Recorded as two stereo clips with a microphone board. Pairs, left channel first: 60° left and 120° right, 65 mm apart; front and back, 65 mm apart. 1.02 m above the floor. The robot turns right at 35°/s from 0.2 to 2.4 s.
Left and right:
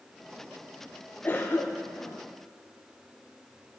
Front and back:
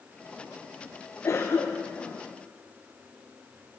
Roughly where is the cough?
Ahead.